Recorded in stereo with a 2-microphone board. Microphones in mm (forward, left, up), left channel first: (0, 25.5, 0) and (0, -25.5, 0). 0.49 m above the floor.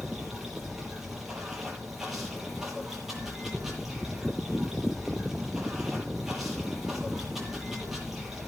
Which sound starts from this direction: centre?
Running water, at 0.0 s.